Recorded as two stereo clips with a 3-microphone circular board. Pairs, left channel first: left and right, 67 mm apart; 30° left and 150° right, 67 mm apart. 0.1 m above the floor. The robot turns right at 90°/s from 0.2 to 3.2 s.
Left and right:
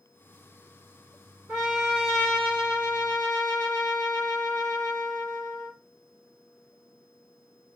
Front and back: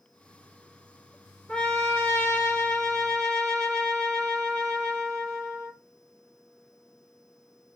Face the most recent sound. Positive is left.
turn(degrees=105)